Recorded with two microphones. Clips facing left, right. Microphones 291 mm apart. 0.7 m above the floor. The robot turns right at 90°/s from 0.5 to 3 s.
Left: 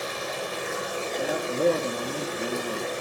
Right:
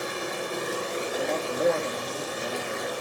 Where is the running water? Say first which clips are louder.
Right 1 dB; 65° right, 6 m; by 3.0 s 160° left, 6 m.